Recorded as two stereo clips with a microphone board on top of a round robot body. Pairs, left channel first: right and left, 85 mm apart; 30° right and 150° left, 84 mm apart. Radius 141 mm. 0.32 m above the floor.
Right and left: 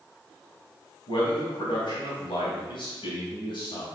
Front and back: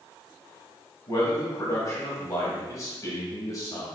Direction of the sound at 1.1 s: 80° right.